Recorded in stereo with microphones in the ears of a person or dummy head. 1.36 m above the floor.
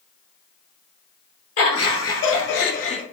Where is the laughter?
75° left (ahead or behind), 1.8 m; by 3.0 s 25° left (ahead or behind), 0.5 m.